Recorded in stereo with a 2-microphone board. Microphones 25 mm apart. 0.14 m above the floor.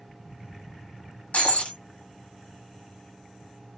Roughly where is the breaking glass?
Left.